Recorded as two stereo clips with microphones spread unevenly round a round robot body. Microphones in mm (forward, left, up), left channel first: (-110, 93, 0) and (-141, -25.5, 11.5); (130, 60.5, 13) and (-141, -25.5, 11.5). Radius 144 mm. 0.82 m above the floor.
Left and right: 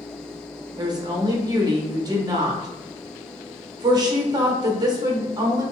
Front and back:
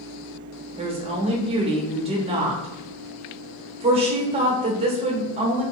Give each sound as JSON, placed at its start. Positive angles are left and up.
{"t": 0.8, "sound": "a woman speaking", "azimuth_deg": -120, "distance_m": 0.9}